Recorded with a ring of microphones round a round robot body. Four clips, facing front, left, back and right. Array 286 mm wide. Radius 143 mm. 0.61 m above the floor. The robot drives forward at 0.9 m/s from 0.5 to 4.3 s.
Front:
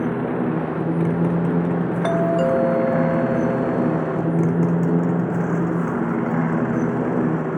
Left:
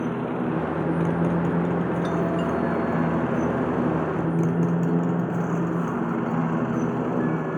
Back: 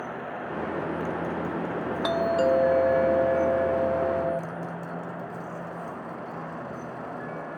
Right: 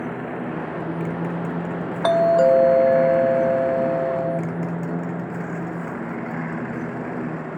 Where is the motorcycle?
10° left; by 7.6 s 15° left.